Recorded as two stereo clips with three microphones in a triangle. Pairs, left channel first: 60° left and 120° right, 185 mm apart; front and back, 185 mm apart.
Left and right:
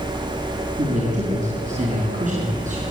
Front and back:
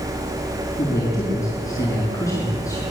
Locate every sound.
0.8 s a man speaking: 70° right, 6.5 m